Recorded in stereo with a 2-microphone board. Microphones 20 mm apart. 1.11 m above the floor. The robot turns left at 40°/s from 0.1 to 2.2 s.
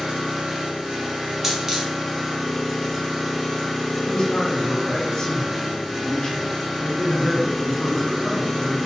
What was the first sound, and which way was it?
An engine running, 100° right.